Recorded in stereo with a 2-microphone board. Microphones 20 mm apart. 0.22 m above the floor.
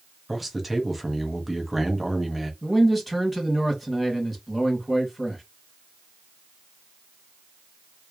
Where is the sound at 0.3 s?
5° right (ahead or behind), 1.4 m.